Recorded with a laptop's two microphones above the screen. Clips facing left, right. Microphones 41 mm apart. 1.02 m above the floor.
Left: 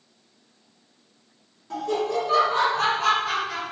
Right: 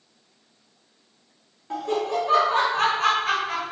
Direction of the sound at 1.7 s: 25° right (ahead or behind).